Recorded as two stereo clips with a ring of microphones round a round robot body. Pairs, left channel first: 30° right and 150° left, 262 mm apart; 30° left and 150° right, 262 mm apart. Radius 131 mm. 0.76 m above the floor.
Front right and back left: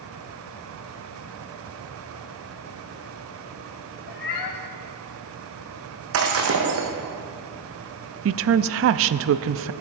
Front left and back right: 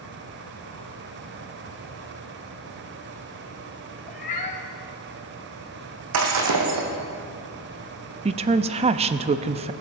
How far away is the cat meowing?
About 1.4 m.